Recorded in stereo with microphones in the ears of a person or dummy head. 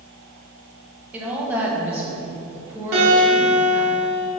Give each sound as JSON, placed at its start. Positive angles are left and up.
{"t": 1.1, "sound": "a woman speaking", "side_deg": -10, "distance_m": 1.4}
{"t": 2.9, "sound": "a guitar", "side_deg": -60, "distance_m": 1.7}